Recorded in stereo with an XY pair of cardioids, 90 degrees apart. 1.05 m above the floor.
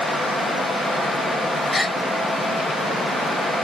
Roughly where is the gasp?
Ahead.